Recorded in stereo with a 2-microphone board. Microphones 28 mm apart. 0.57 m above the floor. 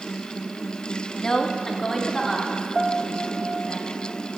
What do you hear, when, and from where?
1.2 s a woman speaking: 20° left (ahead or behind), 1.0 m; by 3.8 s 5° left (ahead or behind), 3 m
2.8 s a piano: 20° left (ahead or behind), 0.8 m